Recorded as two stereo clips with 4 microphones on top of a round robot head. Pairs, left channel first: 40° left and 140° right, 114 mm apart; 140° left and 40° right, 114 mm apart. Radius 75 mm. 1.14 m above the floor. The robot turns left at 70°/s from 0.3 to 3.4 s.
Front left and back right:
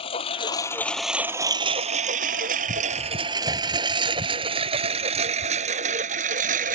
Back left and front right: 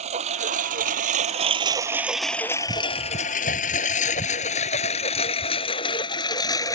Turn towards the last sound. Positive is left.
turn(degrees=-155)